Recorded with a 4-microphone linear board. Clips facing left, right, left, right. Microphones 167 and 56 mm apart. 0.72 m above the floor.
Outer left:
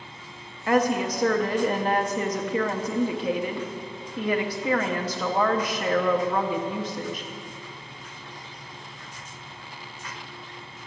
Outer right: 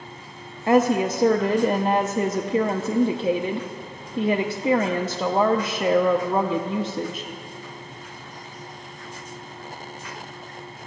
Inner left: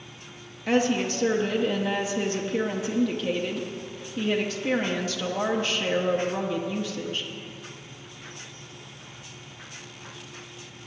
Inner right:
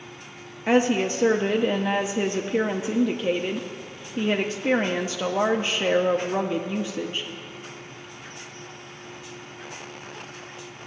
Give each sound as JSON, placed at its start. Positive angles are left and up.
{"t": 0.7, "sound": "a woman speaking", "side_deg": -25, "distance_m": 0.6}